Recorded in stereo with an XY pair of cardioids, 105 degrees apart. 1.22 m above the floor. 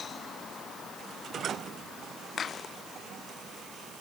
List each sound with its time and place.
Only background noise.